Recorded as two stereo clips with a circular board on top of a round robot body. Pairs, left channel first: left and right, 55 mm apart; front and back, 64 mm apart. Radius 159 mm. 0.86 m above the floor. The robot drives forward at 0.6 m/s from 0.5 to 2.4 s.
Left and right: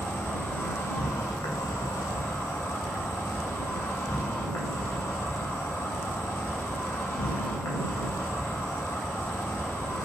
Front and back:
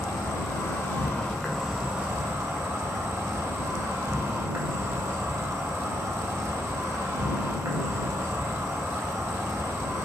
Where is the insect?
40° left, 0.9 m; by 10.1 s 130° left, 0.7 m.